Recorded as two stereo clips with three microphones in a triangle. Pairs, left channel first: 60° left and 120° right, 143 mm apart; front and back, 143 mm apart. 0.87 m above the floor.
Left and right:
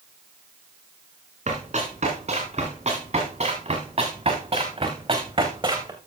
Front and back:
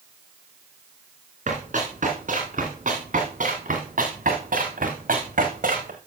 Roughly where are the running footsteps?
Behind right.